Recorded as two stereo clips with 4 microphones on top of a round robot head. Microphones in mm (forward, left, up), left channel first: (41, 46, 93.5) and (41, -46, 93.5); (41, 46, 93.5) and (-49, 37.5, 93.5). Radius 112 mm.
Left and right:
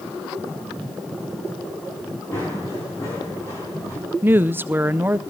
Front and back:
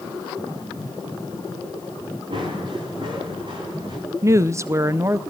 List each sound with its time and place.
2.3 s running footsteps: 155° left, 9 m; by 4.0 s 150° left, 9.5 m
4.2 s a woman speaking: 140° right, 0.7 m